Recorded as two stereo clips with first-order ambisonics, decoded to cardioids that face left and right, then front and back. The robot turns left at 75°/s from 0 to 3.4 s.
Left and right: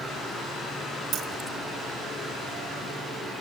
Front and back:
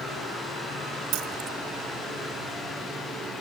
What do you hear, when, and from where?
1.1 s keys jangling: 145° right, 1.9 m; by 1.6 s straight behind, 1.9 m